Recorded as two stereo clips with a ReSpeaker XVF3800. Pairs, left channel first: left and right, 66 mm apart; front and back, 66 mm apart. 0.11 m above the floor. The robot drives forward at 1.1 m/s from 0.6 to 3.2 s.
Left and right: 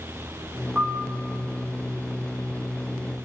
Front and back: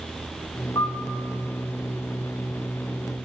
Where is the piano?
15° right, 1.5 m; by 1.1 s 25° right, 1.2 m.